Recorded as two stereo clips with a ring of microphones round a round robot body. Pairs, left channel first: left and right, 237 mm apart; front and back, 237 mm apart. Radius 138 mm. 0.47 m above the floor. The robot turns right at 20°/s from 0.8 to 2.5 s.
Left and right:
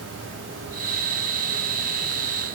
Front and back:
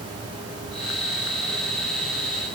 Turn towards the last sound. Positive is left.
No sound to turn to.